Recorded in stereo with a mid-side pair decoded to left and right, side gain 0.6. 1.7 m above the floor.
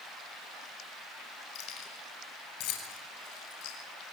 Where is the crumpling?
No crumpling in this recording.